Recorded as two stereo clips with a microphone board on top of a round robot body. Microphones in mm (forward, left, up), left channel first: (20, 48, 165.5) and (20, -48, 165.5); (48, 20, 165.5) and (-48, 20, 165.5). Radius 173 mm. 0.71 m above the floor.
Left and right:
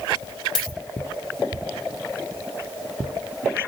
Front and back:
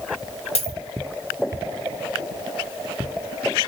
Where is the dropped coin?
5° left, 0.9 m.